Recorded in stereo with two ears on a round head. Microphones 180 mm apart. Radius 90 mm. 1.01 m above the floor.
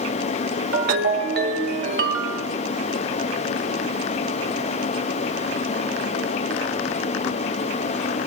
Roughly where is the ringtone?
Right.